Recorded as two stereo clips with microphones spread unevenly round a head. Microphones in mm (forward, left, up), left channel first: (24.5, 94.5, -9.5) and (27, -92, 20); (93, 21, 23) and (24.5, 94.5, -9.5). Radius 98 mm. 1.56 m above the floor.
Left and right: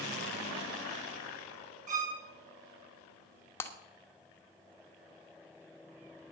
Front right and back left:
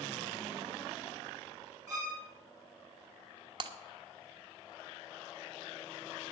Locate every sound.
1.9 s a violin: 140° right, 2 m
3.6 s breaking glass: 175° left, 1.0 m